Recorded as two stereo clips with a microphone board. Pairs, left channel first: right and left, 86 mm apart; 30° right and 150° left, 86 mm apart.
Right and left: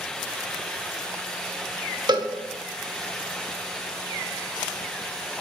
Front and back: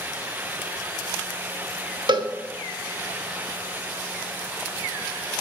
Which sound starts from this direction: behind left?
A cowbell, at 2.1 s.